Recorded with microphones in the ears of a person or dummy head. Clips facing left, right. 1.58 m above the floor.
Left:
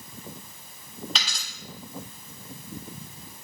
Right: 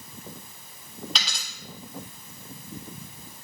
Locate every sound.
1.1 s a dropped coin: centre (ahead or behind), 1.6 m